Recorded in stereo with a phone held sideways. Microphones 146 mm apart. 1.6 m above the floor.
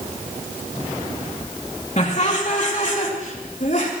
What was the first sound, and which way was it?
Laughter, 50° left (ahead or behind).